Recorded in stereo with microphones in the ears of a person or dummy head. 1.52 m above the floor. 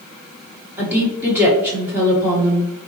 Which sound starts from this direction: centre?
A woman speaking, at 0.8 s.